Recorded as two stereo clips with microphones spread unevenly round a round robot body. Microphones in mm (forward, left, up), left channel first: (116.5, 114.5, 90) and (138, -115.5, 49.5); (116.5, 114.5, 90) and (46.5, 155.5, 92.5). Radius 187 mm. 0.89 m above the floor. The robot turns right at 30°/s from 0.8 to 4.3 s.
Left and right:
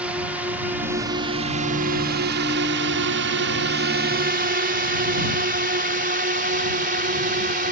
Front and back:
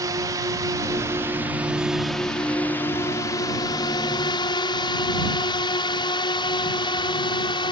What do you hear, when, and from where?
0.0 s a drone: 165° right; by 7.7 s 40° right